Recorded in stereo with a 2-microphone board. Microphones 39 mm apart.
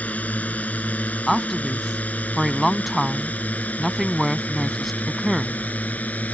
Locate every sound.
0.0 s a drone: 40° left (ahead or behind); by 6.3 s 45° left (ahead or behind)
1.3 s a woman speaking: centre (ahead or behind)